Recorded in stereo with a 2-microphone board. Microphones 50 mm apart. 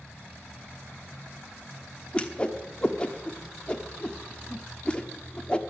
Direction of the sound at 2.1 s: 25° left (ahead or behind).